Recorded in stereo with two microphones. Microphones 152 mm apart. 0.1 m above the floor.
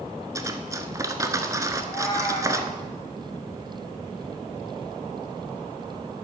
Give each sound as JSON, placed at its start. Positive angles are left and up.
{"t": 0.3, "sound": "cutlery clinking", "side_deg": -20, "distance_m": 0.7}
{"t": 1.8, "sound": "a cat meowing", "side_deg": 20, "distance_m": 3.5}